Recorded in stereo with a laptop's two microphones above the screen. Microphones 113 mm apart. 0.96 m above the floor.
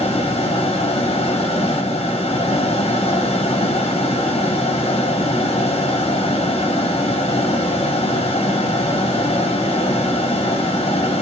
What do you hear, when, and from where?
0.0 s a fan: 60° left (ahead or behind), 1.0 m